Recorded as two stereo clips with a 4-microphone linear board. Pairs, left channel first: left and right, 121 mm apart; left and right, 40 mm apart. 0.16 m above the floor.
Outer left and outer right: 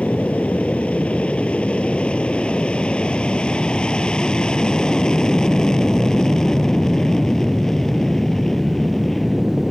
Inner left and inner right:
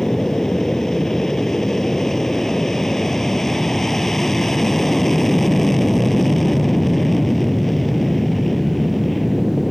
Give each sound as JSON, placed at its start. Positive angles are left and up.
{"t": 0.0, "sound": "an aircraft", "side_deg": 10}